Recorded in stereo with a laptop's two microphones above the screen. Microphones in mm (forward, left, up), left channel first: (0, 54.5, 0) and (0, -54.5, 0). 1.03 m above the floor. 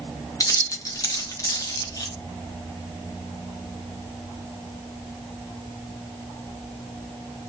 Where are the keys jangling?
30° left (ahead or behind), 0.9 m.